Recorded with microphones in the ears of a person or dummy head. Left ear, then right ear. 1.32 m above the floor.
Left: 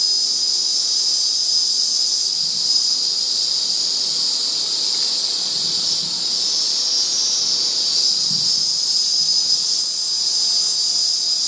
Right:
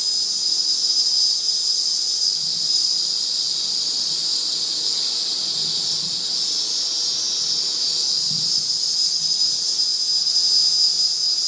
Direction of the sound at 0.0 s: 40° left (ahead or behind).